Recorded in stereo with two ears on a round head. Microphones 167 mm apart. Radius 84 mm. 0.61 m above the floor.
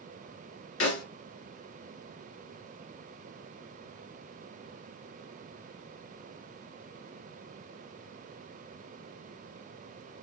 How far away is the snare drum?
About 1.6 m.